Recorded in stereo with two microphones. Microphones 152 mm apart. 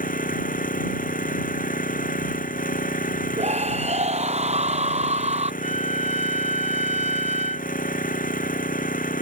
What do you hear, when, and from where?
0.0 s an engine running: 60° left (ahead or behind)
3.4 s a scream: 45° right (ahead or behind)
5.6 s a trumpet: 45° right (ahead or behind)